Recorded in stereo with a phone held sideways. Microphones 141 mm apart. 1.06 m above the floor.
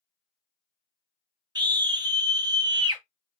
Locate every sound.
1.6 s a scream: 30° right (ahead or behind), 1.4 m